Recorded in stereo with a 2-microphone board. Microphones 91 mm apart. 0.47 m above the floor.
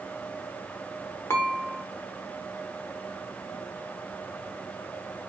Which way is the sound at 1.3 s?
30° left (ahead or behind).